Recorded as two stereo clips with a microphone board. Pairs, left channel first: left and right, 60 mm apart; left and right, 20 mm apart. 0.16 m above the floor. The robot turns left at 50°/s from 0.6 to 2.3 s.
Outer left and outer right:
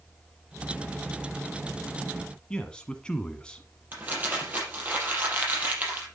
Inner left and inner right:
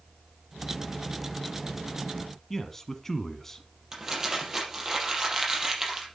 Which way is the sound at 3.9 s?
30° right (ahead or behind).